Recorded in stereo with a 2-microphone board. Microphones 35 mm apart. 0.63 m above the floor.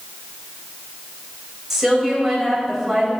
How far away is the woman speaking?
About 3.5 m.